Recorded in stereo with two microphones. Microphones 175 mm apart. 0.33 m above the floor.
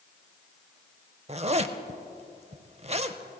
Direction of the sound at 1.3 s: 40° right (ahead or behind).